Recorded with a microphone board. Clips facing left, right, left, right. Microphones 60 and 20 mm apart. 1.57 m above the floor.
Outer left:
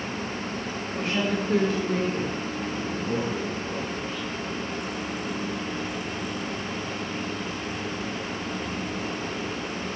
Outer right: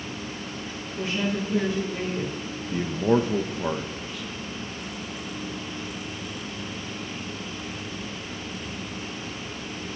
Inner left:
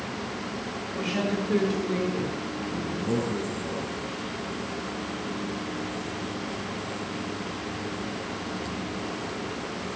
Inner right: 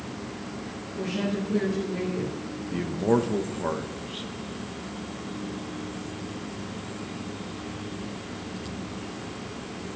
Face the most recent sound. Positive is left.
turn(degrees=-65)  # may be behind; listen again after turning